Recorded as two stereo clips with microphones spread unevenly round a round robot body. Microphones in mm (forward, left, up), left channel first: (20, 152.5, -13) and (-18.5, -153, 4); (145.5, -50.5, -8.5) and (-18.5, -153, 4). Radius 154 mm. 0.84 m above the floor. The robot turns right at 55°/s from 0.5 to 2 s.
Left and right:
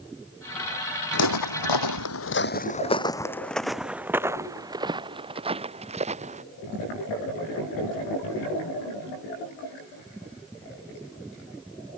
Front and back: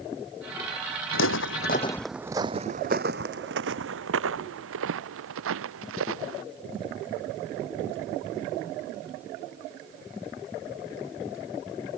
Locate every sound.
1.1 s footsteps: 35° left; by 6.4 s 165° right